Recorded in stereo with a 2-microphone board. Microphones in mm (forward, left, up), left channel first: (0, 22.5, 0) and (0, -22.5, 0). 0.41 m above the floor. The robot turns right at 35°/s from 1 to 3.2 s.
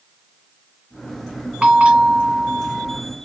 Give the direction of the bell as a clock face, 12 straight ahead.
5 o'clock.